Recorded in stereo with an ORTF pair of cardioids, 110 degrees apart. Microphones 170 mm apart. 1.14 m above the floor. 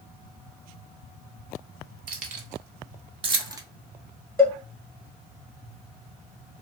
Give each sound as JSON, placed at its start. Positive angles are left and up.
{"t": 2.1, "sound": "keys jangling", "azimuth_deg": -55, "distance_m": 1.3}
{"t": 4.4, "sound": "a cowbell", "azimuth_deg": 15, "distance_m": 1.1}